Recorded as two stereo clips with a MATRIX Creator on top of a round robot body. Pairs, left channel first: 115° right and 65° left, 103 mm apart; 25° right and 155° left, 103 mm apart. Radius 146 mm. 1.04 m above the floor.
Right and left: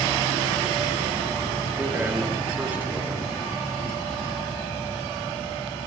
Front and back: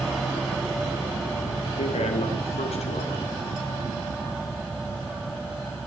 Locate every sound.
1.8 s a man speaking: 5° right, 2 m